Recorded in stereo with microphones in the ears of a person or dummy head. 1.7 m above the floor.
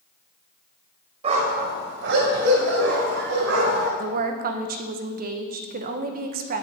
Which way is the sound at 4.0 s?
55° right (ahead or behind).